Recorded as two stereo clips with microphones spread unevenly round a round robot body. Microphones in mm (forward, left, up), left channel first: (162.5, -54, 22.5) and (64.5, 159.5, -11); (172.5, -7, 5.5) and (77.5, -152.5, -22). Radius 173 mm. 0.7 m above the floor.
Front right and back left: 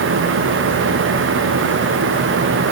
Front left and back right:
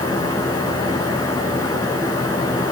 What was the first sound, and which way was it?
Only background noise.